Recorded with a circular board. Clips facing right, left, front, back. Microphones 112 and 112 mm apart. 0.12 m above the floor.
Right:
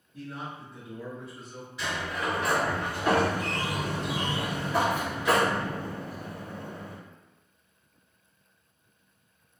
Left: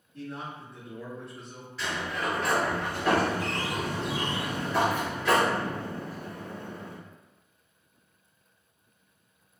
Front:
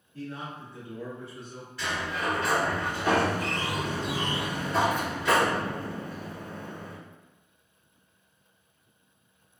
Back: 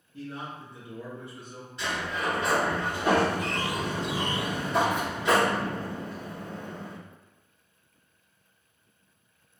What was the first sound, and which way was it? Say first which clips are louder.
A man speaking: left 1 dB, even; 165° right.